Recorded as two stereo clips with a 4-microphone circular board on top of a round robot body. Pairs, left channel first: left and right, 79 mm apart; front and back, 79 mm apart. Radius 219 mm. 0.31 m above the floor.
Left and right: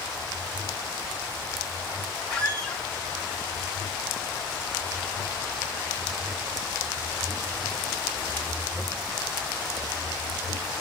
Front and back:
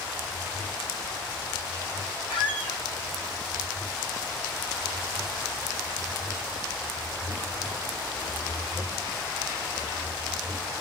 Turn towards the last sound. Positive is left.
turn(degrees=10)